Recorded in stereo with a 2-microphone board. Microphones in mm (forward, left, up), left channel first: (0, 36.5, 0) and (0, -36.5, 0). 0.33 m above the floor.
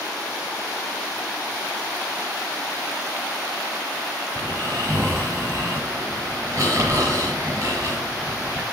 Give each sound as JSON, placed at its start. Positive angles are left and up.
{"t": 4.3, "sound": "snoring", "side_deg": -35, "distance_m": 5.5}